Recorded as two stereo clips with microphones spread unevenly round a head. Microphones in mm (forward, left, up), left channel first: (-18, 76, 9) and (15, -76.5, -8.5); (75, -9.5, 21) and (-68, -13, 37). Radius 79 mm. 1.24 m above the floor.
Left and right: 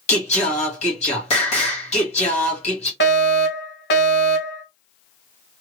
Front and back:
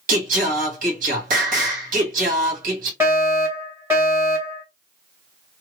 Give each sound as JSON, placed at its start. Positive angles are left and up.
{"t": 0.1, "sound": "singing", "azimuth_deg": 150, "distance_m": 1.4}
{"t": 3.0, "sound": "a fire alarm", "azimuth_deg": 105, "distance_m": 2.5}